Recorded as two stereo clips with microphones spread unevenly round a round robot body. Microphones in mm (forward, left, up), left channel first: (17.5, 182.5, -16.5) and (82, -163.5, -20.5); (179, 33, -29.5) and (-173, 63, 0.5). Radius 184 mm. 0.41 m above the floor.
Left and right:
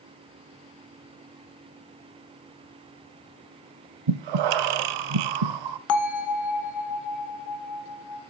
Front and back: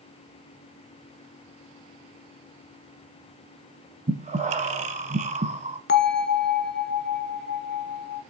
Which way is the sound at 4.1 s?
110° right.